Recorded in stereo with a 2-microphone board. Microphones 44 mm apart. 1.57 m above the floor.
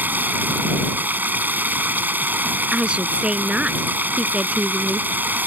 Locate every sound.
0.0 s running water: 45° right (ahead or behind)
2.7 s a woman speaking: 25° right (ahead or behind)